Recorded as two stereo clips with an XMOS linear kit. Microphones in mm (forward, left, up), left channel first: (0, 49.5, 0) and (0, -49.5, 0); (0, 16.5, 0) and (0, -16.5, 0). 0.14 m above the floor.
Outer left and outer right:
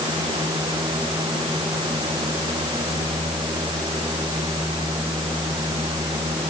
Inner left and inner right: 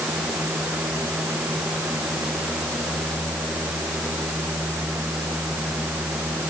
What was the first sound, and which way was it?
Only background noise.